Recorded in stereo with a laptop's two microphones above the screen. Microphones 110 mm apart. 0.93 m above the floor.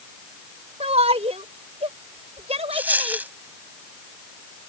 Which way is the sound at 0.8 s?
80° right.